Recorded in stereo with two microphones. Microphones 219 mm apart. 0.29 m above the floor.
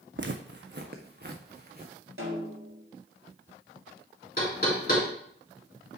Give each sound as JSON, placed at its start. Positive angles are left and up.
{"t": 0.2, "sound": "footsteps", "side_deg": -60, "distance_m": 0.7}
{"t": 2.2, "sound": "a snare drum", "side_deg": -75, "distance_m": 2.5}
{"t": 4.4, "sound": "knocking", "side_deg": 45, "distance_m": 3.0}